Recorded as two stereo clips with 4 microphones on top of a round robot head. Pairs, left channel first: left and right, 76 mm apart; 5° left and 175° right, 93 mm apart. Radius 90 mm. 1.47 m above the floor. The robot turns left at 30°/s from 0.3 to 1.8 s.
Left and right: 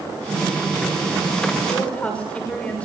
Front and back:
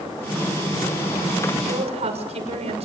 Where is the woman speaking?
175° left, 6.5 m; by 2.9 s 170° left, 6.5 m.